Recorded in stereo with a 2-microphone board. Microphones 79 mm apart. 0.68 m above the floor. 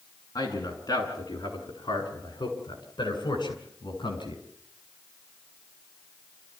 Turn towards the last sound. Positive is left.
turn(degrees=75)  # may be behind; listen again after turning